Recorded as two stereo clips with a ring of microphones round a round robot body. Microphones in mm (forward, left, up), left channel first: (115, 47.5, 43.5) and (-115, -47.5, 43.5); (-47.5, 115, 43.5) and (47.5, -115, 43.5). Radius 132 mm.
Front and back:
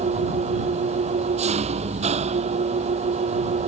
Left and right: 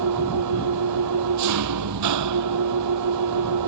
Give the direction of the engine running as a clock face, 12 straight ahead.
3 o'clock.